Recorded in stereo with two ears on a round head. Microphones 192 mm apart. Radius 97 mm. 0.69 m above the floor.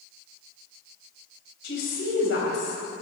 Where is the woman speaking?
55° left (ahead or behind), 4 m.